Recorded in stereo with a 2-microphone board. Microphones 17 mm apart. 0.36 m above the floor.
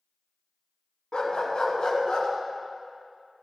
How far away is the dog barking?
About 1.4 m.